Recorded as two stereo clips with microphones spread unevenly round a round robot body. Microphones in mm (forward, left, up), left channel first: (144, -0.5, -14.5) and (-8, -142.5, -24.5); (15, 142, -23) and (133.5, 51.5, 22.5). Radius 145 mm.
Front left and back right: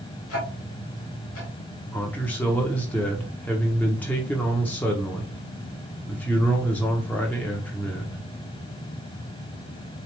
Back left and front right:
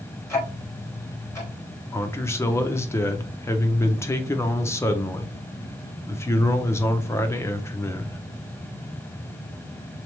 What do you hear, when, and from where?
0.3 s ticking: 80° left, 2.5 m
1.9 s a man speaking: 125° left, 0.7 m